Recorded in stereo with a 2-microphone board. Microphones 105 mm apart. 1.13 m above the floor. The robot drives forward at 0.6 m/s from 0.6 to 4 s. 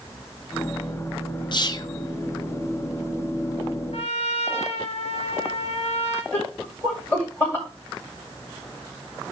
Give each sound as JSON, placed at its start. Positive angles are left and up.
{"t": 1.5, "sound": "whispering", "side_deg": 45, "distance_m": 0.7}
{"t": 3.9, "sound": "a trumpet", "side_deg": 80, "distance_m": 1.4}
{"t": 6.3, "sound": "laughter", "side_deg": 20, "distance_m": 2.0}